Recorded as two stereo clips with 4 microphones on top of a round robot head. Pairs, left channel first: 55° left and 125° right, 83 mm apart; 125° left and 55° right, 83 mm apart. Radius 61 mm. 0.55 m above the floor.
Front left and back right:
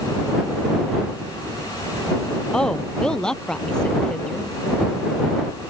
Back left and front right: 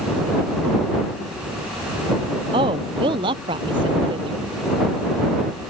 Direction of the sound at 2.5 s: 25° right.